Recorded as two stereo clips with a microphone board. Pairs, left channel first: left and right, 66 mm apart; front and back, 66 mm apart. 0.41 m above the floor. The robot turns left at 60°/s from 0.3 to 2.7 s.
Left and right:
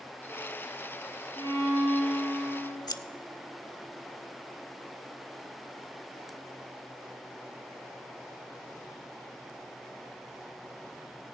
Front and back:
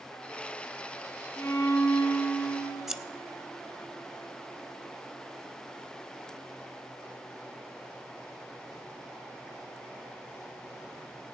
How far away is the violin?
About 5 m.